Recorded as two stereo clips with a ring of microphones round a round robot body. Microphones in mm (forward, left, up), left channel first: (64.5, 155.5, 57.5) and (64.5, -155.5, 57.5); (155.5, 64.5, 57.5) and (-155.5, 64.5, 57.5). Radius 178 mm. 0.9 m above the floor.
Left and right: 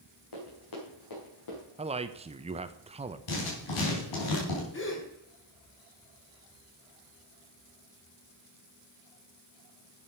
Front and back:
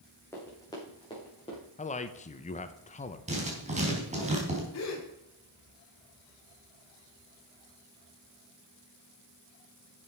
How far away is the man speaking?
About 0.9 m.